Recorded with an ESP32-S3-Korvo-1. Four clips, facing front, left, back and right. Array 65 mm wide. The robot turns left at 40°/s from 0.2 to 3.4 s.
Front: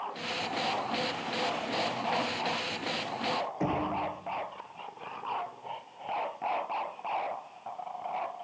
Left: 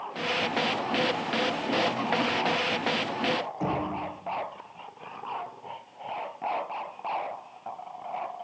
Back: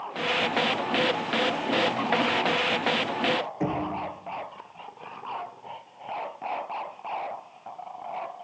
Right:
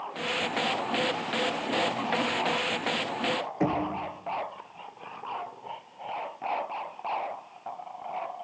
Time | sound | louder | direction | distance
3.6 | knocking | right 5 dB, back 2 dB | 100° right | 3.5 m